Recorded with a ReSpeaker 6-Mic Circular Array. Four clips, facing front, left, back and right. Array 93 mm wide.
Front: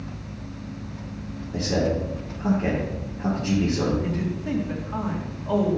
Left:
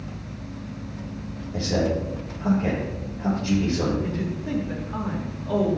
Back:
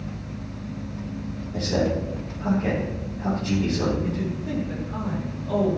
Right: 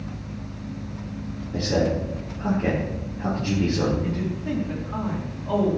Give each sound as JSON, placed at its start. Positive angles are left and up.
{"t": 1.5, "sound": "a man speaking", "azimuth_deg": -45, "distance_m": 4.0}
{"t": 4.0, "sound": "a man speaking", "azimuth_deg": -35, "distance_m": 3.0}